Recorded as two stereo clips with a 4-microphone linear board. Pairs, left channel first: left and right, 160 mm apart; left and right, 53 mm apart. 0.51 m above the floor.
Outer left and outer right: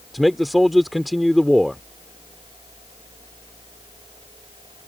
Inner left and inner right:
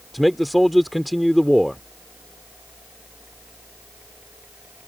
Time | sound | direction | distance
0.1 | a man speaking | centre (ahead or behind) | ?